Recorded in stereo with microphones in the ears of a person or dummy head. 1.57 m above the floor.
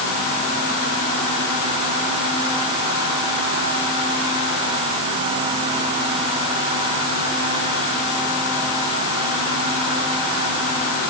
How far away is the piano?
I don't hear a piano.